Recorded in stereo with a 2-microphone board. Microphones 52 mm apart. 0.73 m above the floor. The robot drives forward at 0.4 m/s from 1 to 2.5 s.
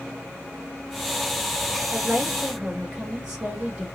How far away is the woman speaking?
About 1.5 m.